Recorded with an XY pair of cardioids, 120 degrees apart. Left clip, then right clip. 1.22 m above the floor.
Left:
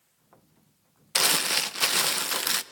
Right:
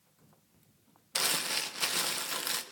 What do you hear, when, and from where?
1.1 s crumpling: 40° left, 0.6 m